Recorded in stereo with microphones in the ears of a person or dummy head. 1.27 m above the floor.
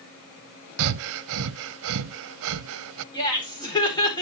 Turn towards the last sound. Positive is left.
turn(degrees=25)  # may be behind; listen again after turning